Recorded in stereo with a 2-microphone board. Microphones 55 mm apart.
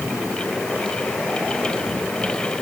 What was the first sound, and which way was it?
Only background noise.